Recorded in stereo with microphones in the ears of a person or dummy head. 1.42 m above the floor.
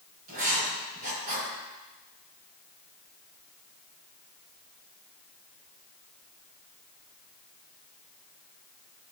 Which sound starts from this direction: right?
Writing, at 0.3 s.